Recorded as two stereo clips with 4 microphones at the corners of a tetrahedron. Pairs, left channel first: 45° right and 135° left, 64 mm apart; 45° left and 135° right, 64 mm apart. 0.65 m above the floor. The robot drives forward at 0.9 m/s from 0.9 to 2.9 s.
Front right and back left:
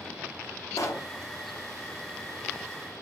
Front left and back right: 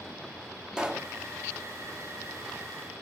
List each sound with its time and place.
0.8 s a pop: 60° right, 0.5 m; by 1.1 s 80° right, 0.5 m